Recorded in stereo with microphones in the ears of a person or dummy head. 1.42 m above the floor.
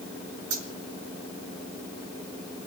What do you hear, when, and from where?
0.5 s a dropped coin: 75° right (ahead or behind), 5.5 m